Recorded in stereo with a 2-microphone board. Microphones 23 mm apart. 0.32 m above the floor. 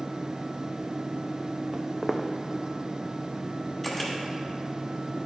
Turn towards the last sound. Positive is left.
turn(degrees=10)  # may be behind; listen again after turning